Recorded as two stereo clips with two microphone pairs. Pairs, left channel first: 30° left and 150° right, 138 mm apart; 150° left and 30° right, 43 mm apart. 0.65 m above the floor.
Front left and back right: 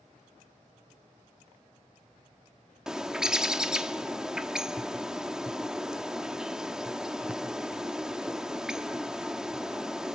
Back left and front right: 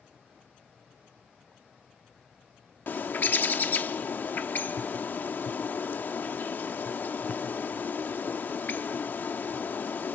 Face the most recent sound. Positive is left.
turn(degrees=130)